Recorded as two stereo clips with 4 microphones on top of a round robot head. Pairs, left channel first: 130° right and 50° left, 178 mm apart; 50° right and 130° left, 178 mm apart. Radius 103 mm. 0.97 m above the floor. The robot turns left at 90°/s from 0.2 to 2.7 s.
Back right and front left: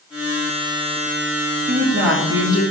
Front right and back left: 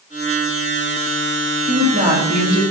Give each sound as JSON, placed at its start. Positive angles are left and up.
{"t": 1.7, "sound": "a woman speaking", "azimuth_deg": 100, "distance_m": 2.5}